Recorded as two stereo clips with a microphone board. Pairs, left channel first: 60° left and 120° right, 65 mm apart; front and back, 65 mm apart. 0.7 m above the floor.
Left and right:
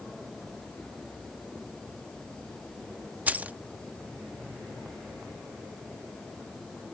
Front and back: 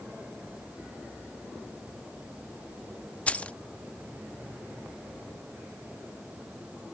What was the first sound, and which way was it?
Keys jangling, 65° right.